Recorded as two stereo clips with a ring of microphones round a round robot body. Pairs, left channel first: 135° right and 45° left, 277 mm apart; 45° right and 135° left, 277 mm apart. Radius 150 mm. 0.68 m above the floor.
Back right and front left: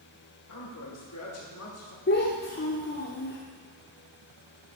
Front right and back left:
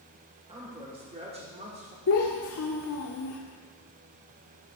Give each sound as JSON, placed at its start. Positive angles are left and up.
{"t": 0.5, "sound": "a man speaking", "azimuth_deg": -155, "distance_m": 3.5}
{"t": 2.1, "sound": "a child speaking", "azimuth_deg": -80, "distance_m": 1.0}